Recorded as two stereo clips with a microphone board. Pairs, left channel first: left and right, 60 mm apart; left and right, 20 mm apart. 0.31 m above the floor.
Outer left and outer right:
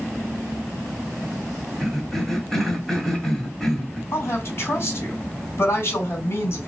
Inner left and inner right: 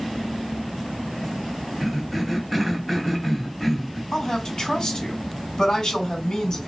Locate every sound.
1.8 s a cough: 5° left (ahead or behind), 2 m
4.1 s a woman speaking: 45° left (ahead or behind), 2.5 m